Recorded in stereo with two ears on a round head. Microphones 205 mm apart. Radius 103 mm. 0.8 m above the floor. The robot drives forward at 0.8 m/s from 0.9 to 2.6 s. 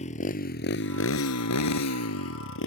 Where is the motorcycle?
30° left (ahead or behind); by 2.7 s 60° left (ahead or behind).